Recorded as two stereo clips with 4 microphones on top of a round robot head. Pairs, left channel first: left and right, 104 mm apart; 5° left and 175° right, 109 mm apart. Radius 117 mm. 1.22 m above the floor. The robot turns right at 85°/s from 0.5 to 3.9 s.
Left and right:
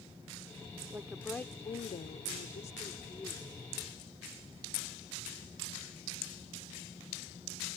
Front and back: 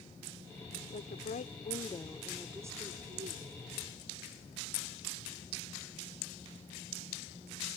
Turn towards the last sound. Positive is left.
turn(degrees=-135)